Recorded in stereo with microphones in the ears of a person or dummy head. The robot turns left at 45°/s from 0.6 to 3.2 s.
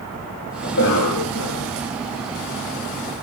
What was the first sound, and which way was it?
A cough, 130° left.